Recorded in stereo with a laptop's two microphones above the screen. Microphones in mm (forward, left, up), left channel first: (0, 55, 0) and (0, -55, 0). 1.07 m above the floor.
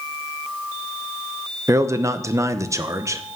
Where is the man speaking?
30° right (ahead or behind), 0.7 m.